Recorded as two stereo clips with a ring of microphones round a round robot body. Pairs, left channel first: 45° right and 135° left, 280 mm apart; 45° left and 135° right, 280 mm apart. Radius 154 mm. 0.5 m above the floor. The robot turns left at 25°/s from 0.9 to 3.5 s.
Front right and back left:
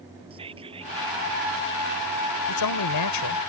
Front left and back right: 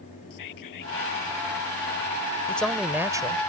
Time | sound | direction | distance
0.3 | whispering | 65° left | ?
2.5 | a man speaking | 40° right | ?